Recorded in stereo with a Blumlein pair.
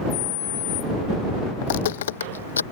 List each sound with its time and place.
1.6 s footsteps: 50° left; by 2.6 s 75° left